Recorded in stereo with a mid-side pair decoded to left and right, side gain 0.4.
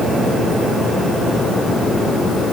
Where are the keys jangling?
I don't hear keys jangling.